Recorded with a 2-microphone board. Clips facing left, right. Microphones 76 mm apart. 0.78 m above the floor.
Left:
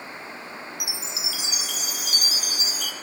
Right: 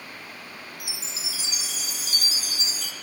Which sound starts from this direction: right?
A chime, at 0.8 s.